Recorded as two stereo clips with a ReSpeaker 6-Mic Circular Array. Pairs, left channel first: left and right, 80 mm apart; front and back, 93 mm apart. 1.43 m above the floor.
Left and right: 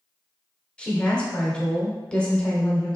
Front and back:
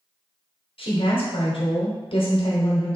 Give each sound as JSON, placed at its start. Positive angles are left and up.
{"t": 0.8, "sound": "a woman speaking", "azimuth_deg": 15, "distance_m": 1.0}